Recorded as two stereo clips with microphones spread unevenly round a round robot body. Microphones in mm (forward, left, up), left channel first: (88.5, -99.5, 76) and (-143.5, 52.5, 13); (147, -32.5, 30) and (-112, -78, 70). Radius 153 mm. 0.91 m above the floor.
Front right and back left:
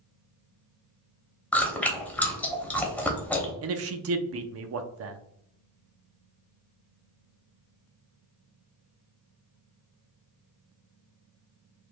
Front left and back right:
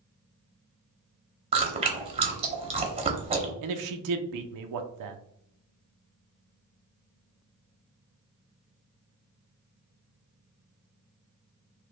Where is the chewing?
110° right, 0.7 m.